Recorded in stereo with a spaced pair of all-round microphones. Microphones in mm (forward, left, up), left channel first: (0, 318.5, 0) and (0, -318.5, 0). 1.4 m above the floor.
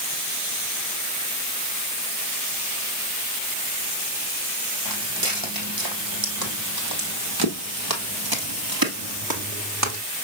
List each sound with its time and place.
4.8 s footsteps: 30° right (ahead or behind), 3 m; by 10.0 s 25° right (ahead or behind), 1.6 m